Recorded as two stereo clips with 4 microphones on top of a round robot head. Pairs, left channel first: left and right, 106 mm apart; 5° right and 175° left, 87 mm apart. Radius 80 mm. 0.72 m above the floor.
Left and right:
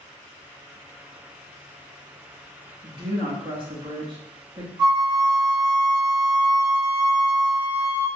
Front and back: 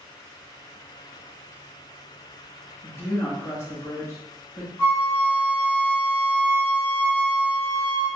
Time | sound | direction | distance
2.8 | a woman speaking | 60° right | 1.1 m
4.8 | a flute | 60° right | 1.3 m